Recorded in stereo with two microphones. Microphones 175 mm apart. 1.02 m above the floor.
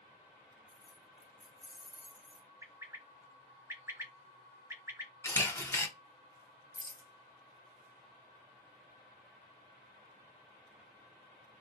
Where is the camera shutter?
15° left (ahead or behind), 0.6 m.